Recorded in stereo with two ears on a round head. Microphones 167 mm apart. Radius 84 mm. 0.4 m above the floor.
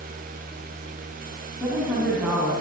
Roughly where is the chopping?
I don't hear chopping.